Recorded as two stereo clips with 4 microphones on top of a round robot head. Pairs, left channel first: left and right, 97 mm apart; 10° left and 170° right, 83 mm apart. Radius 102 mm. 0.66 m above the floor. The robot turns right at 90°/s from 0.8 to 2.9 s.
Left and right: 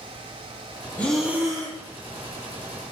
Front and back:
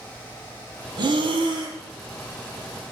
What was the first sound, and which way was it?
Breathing, 165° left.